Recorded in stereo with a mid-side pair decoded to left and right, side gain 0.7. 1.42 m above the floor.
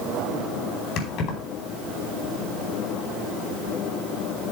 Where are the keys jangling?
50° left, 4 m.